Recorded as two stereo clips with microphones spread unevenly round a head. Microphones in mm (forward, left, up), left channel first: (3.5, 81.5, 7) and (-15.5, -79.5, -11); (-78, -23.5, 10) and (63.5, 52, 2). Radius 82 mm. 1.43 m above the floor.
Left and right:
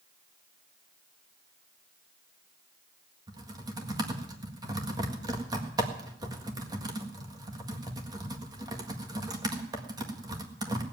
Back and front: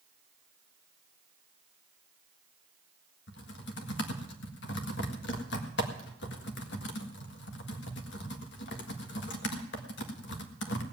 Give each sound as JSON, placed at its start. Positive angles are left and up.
{"t": 3.3, "sound": "typing on a keyboard", "azimuth_deg": -165, "distance_m": 1.7}